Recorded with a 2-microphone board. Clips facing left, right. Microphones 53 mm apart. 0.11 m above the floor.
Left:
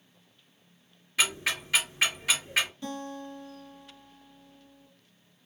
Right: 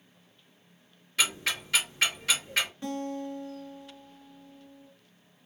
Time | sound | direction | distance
1.2 | ticking | 10° left (ahead or behind) | 2 m
2.8 | a guitar | 30° right (ahead or behind) | 1.7 m